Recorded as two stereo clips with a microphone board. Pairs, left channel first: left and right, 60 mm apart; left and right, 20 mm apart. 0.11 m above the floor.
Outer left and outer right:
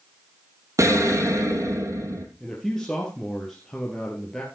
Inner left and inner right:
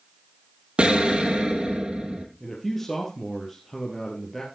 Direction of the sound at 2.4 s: 10° left (ahead or behind).